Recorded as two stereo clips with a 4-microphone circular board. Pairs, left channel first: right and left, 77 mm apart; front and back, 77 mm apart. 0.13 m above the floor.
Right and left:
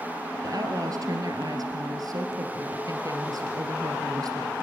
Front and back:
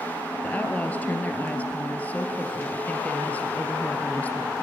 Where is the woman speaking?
70° left, 2.5 m.